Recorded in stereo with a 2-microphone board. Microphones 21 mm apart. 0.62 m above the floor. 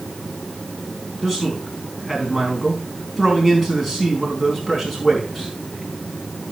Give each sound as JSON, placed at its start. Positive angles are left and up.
{"t": 1.2, "sound": "a man speaking", "side_deg": 5, "distance_m": 4.5}